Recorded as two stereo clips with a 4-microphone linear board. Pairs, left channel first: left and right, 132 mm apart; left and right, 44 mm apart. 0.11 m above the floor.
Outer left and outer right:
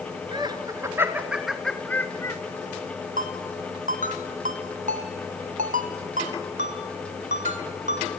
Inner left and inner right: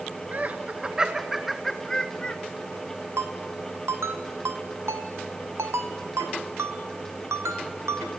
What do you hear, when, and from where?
0.3 s laughter: 35° right (ahead or behind), 1.3 m; by 2.4 s 25° left (ahead or behind), 1.2 m
3.2 s a ringtone: 80° right, 2 m